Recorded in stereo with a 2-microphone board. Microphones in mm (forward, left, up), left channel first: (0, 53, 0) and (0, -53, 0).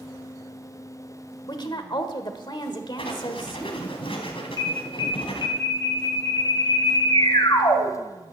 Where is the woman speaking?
45° left (ahead or behind), 1.4 m.